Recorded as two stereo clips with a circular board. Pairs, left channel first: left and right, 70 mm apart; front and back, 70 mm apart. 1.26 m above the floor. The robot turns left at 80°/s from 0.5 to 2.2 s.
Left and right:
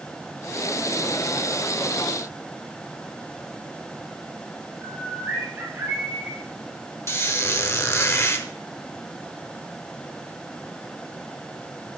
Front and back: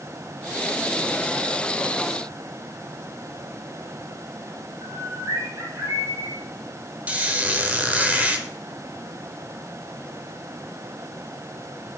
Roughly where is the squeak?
Behind left.